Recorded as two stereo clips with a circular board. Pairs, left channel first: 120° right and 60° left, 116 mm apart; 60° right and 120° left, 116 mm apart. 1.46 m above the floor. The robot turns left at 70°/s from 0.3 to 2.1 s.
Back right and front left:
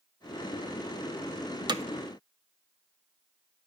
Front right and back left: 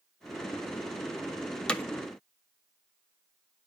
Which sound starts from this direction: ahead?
Hammering, at 1.7 s.